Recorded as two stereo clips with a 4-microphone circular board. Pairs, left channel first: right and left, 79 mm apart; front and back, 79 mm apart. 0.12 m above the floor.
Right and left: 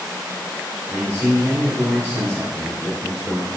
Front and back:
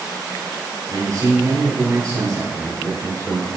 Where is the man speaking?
175° left, 1.8 m.